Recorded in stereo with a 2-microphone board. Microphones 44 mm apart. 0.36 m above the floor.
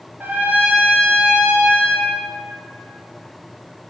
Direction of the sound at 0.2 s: 50° right (ahead or behind).